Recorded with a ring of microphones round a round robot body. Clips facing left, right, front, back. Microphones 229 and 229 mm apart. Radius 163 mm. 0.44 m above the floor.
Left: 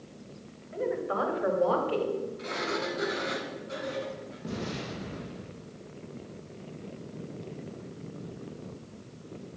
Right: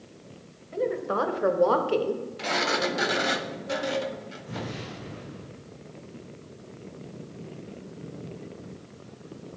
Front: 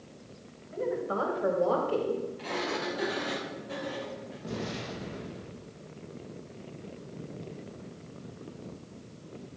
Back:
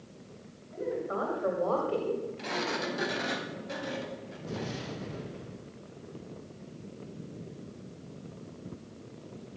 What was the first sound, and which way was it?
A woman speaking, 55° right.